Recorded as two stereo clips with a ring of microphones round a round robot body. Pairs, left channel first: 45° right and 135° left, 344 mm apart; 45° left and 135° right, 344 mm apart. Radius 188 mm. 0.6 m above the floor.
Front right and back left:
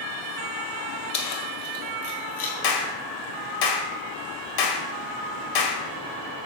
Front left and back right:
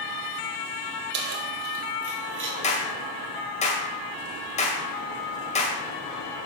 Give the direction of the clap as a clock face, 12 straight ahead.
1 o'clock.